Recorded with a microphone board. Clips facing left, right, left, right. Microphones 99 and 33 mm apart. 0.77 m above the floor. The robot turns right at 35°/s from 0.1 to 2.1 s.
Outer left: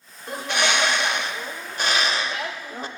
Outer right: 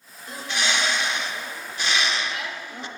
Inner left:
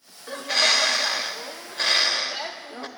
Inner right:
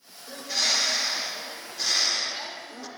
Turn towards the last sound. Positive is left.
turn(degrees=130)